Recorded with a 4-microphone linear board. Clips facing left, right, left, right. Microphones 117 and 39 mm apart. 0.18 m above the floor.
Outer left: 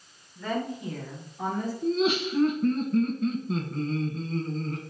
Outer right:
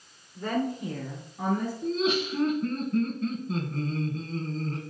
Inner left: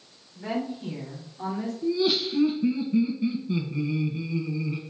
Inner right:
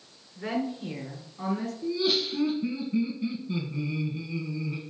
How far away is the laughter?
About 1.4 m.